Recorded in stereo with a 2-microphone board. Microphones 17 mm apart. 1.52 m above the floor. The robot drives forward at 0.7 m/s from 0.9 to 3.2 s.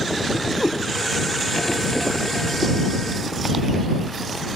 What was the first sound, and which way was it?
A cat meowing, centre (ahead or behind).